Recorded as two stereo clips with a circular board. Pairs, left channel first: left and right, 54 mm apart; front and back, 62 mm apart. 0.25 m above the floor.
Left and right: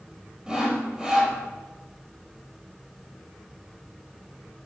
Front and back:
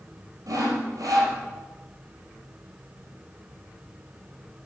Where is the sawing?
165° right, 2 m.